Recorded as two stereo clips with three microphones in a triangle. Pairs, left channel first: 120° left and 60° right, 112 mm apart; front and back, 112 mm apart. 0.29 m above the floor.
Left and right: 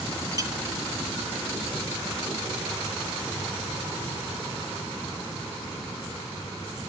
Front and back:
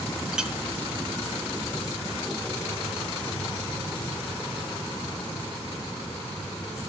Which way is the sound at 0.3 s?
100° right.